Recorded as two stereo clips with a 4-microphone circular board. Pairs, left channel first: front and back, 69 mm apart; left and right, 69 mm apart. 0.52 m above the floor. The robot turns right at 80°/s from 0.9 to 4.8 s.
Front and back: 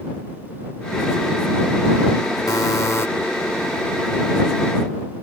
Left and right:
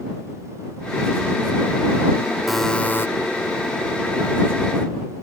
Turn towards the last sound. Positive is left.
turn(degrees=180)